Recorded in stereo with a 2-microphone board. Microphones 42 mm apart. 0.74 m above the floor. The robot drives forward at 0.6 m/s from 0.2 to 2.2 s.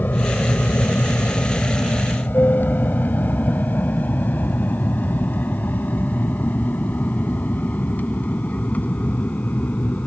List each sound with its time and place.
0.0 s an aircraft: 45° left (ahead or behind); by 10.1 s 35° left (ahead or behind)